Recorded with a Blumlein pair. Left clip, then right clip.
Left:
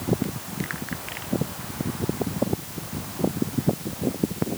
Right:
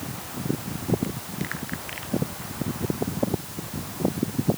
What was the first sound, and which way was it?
Only background noise.